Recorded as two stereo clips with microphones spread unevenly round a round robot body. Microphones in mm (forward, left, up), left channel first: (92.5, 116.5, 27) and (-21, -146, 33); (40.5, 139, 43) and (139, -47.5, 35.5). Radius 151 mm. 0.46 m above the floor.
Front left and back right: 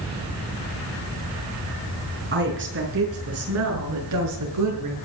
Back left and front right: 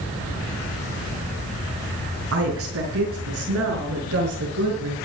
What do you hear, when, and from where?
2.3 s a woman speaking: 60° right, 5.5 m; by 5.0 s 95° right, 6.5 m